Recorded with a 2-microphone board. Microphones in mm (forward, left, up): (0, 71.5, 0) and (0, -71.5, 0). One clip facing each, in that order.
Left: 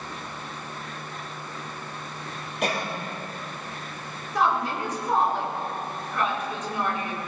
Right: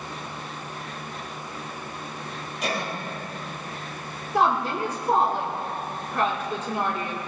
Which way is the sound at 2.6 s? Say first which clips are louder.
Left 2 dB; 65° left (ahead or behind).